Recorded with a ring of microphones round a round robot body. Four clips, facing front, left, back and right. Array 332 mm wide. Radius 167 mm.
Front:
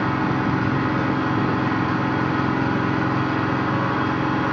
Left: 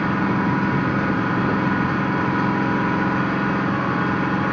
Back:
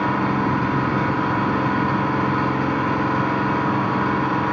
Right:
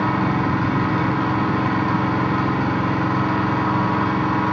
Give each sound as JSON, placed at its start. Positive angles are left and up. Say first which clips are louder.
{"t": 0.0, "sound": "an engine running", "louder": "right 1 dB, back 1 dB", "azimuth_deg": -85, "distance_m": 3.5}